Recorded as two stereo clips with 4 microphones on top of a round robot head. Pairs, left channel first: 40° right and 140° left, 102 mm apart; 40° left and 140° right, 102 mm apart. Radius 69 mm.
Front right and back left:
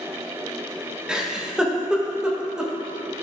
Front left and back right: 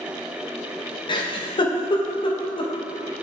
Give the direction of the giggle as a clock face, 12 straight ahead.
10 o'clock.